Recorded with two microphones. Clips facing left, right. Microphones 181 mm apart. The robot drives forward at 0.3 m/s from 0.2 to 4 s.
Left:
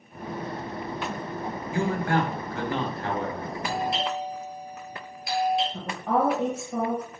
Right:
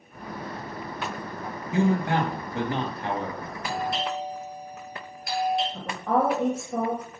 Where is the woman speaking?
5° left (ahead or behind), 3 m.